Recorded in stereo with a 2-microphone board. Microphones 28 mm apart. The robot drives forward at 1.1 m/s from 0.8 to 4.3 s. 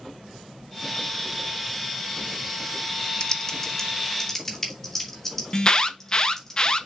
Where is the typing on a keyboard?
30° left (ahead or behind), 0.7 m; by 6.5 s 10° left (ahead or behind), 1.9 m.